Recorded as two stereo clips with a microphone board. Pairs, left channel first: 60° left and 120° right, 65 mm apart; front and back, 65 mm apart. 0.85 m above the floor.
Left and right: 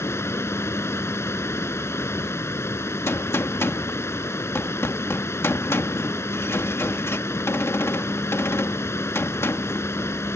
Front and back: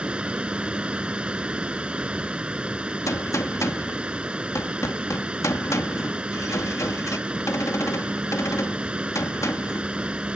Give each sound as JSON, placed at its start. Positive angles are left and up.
{"t": 0.0, "sound": "running water", "azimuth_deg": 105}
{"t": 3.1, "sound": "a gunshot", "azimuth_deg": 25}